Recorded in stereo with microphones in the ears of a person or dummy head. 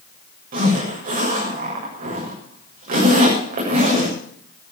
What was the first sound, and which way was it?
A zipper, 45° right (ahead or behind).